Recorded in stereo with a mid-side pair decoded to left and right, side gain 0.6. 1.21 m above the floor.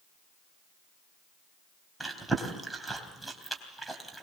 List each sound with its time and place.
2.0 s chewing: 5° right, 3 m